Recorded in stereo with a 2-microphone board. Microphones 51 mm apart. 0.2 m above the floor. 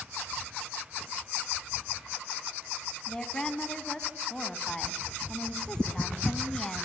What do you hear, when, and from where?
3.1 s a woman speaking: 15° left (ahead or behind), 1.9 m